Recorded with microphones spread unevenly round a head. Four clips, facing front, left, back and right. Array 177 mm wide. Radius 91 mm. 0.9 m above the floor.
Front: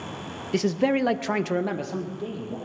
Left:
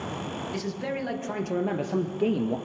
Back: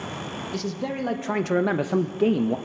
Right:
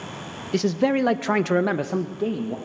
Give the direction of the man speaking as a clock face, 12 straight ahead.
2 o'clock.